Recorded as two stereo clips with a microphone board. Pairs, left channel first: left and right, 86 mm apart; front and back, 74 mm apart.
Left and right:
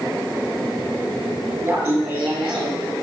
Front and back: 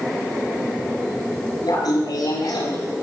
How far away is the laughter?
About 6.5 m.